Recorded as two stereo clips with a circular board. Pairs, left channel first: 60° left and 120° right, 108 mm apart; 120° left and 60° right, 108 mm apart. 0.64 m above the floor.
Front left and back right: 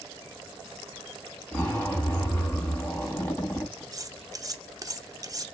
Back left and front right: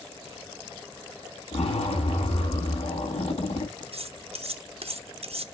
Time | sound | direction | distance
1.5 | a zipper | 135° left | 4 m
3.9 | cutlery clinking | 65° right | 0.6 m